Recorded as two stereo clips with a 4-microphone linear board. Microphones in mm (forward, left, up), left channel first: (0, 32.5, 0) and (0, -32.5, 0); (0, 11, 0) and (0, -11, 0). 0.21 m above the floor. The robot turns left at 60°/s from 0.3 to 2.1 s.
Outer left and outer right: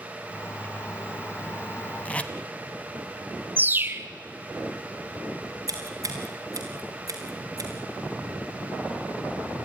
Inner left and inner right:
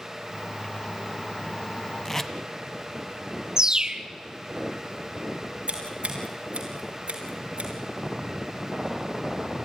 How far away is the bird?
About 0.8 m.